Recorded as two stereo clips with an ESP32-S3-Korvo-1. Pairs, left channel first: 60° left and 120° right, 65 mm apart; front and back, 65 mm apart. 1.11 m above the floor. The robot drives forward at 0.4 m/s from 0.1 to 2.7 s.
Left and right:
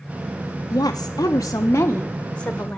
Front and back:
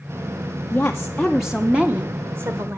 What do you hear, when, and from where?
0.7 s a woman speaking: 60° left, 0.6 m; by 2.8 s 135° left, 0.8 m